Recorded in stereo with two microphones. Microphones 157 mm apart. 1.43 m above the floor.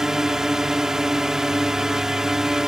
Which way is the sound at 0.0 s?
5° right (ahead or behind).